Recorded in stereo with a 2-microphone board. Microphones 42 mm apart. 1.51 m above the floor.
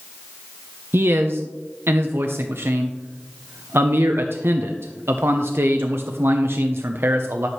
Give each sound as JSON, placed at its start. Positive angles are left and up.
{"t": 0.9, "sound": "a man speaking", "side_deg": -65, "distance_m": 0.7}